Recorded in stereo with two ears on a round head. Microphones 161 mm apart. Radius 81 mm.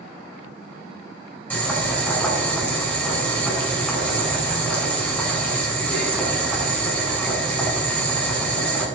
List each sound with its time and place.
1.5 s boiling: 10° left (ahead or behind), 5 m